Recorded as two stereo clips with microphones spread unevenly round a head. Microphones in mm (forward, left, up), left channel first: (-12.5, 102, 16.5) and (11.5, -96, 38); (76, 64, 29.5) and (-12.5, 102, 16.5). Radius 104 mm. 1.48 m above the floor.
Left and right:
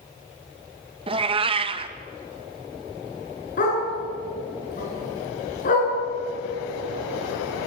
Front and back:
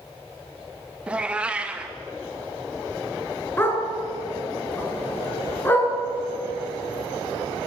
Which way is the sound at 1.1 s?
115° right.